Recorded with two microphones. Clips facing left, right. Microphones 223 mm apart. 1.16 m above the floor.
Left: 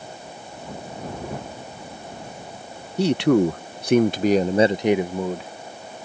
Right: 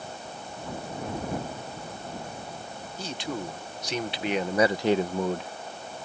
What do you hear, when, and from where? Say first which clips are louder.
3.0 s a man speaking: left 17 dB; 70° left (ahead or behind); by 5.5 s centre (ahead or behind)